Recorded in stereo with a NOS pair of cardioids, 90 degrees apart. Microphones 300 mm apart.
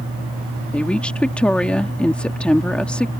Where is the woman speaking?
5° left.